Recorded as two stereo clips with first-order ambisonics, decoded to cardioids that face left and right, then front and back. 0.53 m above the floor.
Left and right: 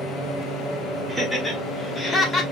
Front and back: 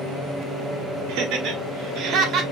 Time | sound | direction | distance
1.1 | laughter | 175° right | 1.7 m